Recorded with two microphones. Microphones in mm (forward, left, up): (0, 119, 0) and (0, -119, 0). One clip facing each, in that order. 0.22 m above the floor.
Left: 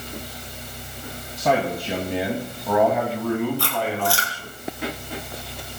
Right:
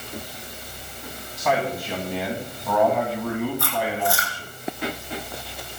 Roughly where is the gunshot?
No gunshot in this recording.